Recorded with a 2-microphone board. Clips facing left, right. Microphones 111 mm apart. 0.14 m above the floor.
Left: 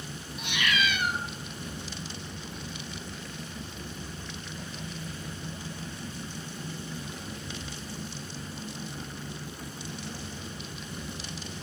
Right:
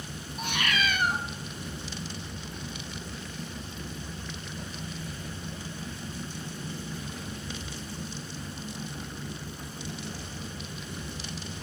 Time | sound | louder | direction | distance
0.4 | a cat meowing | even | 40° right (ahead or behind) | 0.6 m